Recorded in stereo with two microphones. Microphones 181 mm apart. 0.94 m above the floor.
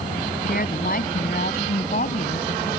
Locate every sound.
0.5 s a woman speaking: 55° left (ahead or behind); by 2.7 s 50° left (ahead or behind)